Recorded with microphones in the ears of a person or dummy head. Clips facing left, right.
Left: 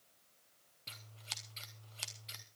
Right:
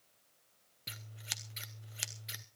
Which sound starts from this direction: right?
Scissors, at 0.9 s.